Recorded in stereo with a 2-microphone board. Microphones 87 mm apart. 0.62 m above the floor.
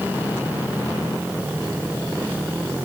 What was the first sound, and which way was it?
Only background noise.